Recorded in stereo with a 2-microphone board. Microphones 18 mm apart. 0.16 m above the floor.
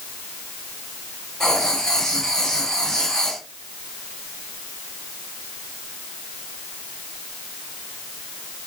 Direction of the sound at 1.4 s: 30° left (ahead or behind).